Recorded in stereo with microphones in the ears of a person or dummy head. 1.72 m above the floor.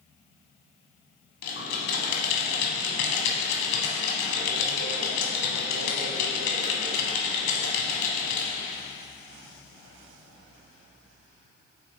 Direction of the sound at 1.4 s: 65° left (ahead or behind).